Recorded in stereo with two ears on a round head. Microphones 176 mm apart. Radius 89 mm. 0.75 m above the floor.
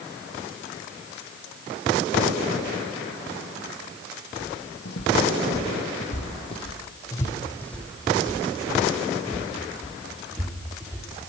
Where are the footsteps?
65° left (ahead or behind), 1.7 m; by 11.1 s 20° right (ahead or behind), 3.5 m.